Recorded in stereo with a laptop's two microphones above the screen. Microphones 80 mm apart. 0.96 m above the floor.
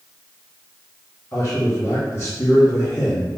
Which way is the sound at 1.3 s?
35° left (ahead or behind).